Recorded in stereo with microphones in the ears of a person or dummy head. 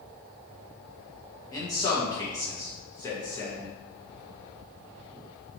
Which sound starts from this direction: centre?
A man speaking, at 1.5 s.